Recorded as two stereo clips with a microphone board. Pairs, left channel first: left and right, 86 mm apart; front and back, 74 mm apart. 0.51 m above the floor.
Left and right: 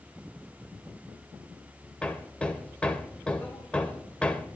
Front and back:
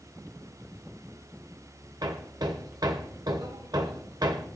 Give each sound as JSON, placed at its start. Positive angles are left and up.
{"t": 2.0, "sound": "hammering", "azimuth_deg": 165, "distance_m": 1.2}